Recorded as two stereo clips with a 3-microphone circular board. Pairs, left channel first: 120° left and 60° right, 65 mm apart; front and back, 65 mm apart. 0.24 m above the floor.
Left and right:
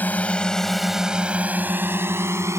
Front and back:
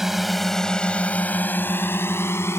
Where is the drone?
100° left; by 2.6 s 35° right.